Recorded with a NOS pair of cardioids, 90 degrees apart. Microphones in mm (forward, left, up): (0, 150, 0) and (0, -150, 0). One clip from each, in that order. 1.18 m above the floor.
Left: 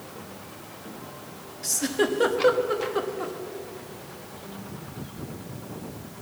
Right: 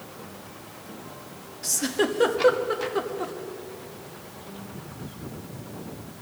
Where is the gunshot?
No gunshot in this recording.